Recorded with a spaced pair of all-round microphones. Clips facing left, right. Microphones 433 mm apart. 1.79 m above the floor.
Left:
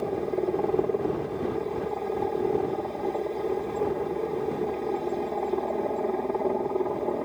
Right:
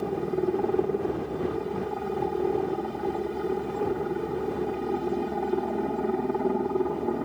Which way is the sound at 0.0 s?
30° right (ahead or behind).